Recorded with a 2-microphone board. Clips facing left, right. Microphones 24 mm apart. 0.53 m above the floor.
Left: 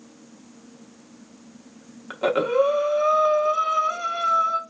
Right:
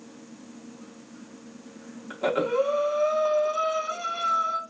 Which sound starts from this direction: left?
Breathing, at 2.1 s.